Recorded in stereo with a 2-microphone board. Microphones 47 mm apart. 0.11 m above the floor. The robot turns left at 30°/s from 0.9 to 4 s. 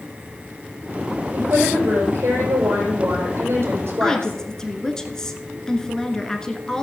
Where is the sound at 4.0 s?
15° left (ahead or behind), 1.3 m.